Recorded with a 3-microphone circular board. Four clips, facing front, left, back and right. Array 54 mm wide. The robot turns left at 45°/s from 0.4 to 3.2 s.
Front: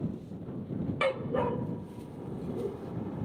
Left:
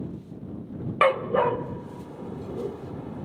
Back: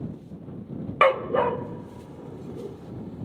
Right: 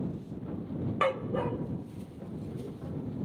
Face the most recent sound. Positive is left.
turn(degrees=55)